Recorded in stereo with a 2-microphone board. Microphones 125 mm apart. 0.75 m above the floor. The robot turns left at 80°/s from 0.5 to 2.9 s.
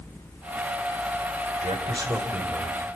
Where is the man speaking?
110° right, 3 m; by 2.8 s 150° left, 3 m.